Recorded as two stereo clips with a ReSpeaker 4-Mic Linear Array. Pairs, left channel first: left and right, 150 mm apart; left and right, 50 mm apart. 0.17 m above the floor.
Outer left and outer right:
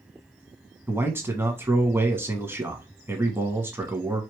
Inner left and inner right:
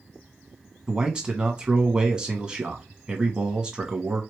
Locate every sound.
0.9 s a man speaking: 15° right (ahead or behind), 1.1 m